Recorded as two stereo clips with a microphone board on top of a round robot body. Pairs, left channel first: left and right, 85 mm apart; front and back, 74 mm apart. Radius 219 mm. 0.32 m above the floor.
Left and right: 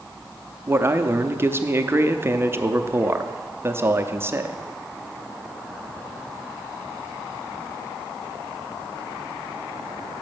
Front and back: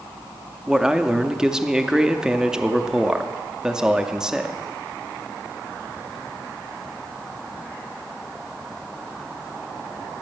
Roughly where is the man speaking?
Right.